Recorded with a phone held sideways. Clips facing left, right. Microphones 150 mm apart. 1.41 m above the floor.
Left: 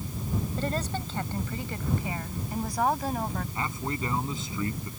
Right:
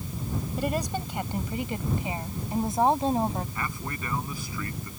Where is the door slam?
I don't hear a door slam.